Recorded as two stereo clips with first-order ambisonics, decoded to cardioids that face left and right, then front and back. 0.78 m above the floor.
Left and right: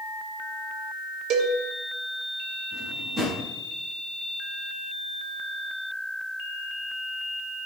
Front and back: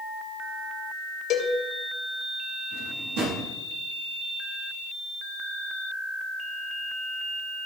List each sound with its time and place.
1.3 s a cowbell: 50° right, 1.3 m
2.7 s a drawer: 170° right, 4.5 m